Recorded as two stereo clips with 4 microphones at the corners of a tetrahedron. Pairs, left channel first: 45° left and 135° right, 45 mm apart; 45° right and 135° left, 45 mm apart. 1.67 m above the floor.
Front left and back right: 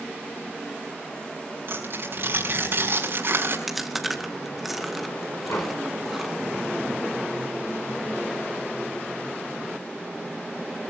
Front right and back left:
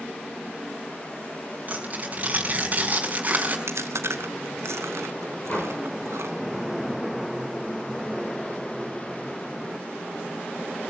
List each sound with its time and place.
1.7 s tearing paper: 175° right, 5.5 m
3.7 s chewing: 135° left, 2.5 m
5.5 s a door slam: 15° left, 6 m